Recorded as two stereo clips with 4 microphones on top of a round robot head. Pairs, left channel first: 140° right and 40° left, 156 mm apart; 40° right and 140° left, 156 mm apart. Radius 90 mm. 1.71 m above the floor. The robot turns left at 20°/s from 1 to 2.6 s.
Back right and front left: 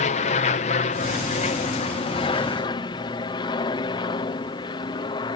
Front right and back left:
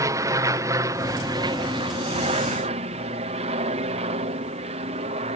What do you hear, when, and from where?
0.0 s an aircraft: 160° right; by 5.4 s 170° left